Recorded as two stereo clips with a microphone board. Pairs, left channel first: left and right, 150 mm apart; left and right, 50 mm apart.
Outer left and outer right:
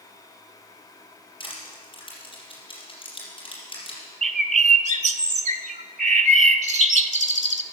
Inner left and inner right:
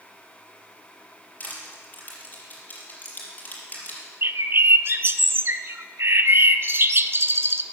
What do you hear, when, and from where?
1.4 s crushing: 35° left (ahead or behind), 4.5 m
4.2 s a bird: 55° right (ahead or behind), 0.6 m